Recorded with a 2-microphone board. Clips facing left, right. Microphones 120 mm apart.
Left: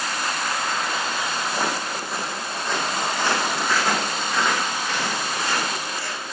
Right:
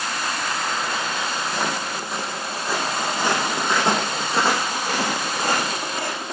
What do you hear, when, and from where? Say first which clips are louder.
1.5 s footsteps: even; 10° left (ahead or behind), 4 m; by 6.3 s 55° right (ahead or behind), 4.5 m